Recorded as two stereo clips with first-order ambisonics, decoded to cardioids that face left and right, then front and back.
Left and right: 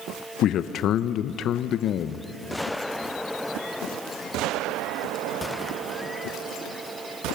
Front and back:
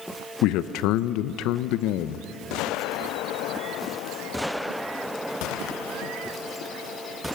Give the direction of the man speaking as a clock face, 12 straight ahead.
11 o'clock.